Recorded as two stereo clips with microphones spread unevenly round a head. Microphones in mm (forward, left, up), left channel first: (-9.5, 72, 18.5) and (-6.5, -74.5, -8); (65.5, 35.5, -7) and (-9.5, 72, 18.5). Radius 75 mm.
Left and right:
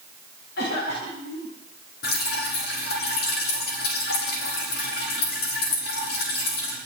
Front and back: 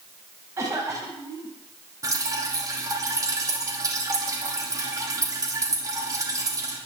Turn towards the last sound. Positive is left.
turn(degrees=105)